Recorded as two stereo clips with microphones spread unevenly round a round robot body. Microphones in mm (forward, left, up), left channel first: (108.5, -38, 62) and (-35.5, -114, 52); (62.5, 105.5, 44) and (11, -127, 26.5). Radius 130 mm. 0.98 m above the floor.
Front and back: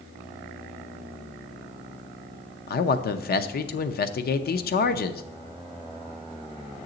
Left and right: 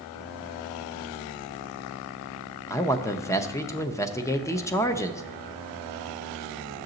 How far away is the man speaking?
About 0.6 m.